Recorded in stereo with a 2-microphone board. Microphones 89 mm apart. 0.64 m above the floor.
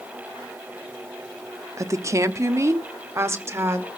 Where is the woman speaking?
30° right (ahead or behind), 0.6 m.